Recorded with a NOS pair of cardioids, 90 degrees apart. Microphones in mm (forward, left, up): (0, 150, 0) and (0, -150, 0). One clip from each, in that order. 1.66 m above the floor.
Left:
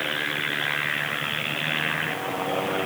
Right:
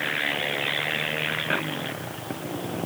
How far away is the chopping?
I don't hear chopping.